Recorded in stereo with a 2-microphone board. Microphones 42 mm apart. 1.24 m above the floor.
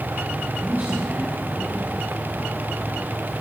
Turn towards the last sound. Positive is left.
turn(degrees=-60)  # may be behind; listen again after turning